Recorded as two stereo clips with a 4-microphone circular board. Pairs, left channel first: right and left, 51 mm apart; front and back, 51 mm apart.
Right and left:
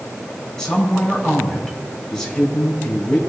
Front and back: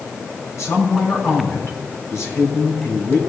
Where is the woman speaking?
15° right, 3.5 m.